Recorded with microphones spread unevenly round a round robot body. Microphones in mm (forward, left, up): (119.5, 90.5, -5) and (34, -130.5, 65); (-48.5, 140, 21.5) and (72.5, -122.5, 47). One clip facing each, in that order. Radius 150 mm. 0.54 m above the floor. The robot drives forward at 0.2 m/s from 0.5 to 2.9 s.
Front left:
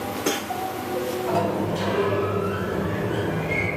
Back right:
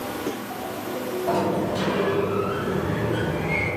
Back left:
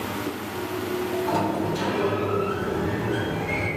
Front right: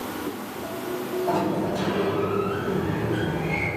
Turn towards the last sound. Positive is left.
turn(degrees=180)